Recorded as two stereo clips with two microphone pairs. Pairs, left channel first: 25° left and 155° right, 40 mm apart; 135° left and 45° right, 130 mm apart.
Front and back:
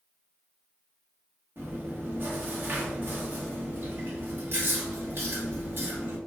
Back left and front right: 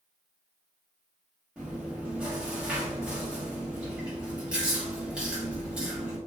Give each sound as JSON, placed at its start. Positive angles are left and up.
{"t": 1.6, "sound": "chewing", "azimuth_deg": -130, "distance_m": 0.8}